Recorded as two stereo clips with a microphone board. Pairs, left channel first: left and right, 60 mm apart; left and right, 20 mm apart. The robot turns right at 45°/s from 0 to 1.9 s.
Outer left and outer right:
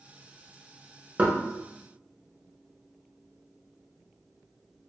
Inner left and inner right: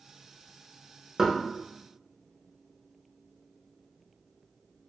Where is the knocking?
25° right (ahead or behind), 0.8 m.